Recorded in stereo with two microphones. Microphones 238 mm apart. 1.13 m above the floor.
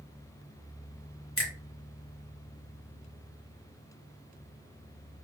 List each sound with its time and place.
1.4 s a finger snap: 65° left (ahead or behind), 1.0 m